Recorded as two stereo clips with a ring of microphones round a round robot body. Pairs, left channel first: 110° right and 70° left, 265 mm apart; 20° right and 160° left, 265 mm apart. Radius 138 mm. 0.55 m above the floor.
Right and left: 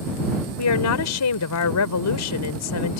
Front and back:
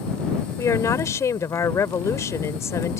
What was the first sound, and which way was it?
A woman speaking, 100° right.